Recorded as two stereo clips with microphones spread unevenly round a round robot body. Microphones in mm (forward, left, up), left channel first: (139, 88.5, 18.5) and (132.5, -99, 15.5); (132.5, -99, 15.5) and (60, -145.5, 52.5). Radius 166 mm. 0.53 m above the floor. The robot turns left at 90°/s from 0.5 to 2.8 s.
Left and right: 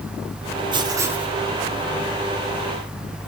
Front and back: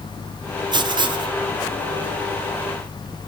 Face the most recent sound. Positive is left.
turn(degrees=50)